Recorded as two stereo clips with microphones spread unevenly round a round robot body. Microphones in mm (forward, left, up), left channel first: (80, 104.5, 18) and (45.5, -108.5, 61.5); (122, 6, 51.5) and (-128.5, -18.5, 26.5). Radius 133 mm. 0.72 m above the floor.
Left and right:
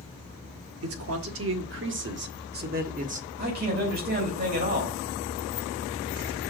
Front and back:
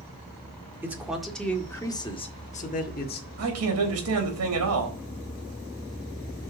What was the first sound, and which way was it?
A man speaking, 95° right.